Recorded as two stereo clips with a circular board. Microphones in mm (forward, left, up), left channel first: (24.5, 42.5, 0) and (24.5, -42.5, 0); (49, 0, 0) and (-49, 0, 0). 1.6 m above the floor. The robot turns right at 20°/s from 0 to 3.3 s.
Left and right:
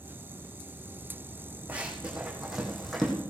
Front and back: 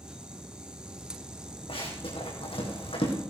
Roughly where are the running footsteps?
Ahead.